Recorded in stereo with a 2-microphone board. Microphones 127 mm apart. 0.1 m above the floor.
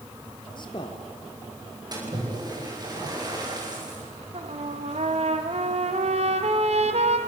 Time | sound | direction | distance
0.6 | a man speaking | 35° left (ahead or behind) | 2.5 m
1.9 | a splash | 30° right (ahead or behind) | 8.5 m
4.3 | a trumpet | 55° right (ahead or behind) | 1.8 m